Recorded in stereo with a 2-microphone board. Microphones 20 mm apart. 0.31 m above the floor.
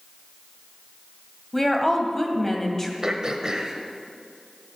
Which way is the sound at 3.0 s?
35° right (ahead or behind).